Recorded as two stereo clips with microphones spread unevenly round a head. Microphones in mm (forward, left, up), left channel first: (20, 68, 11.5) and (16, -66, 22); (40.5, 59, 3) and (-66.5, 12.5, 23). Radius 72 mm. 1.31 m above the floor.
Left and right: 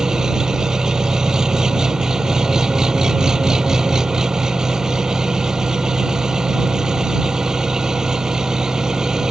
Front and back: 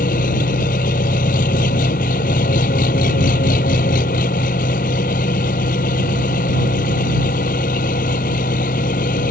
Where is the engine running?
5° right.